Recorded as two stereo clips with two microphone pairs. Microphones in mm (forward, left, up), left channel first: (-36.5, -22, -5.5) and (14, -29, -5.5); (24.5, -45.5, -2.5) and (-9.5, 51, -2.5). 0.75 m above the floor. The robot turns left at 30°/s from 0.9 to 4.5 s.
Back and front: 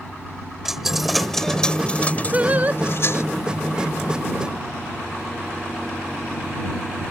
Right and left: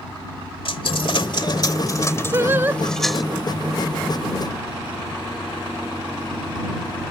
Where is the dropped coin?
90° right; by 3.2 s 160° right.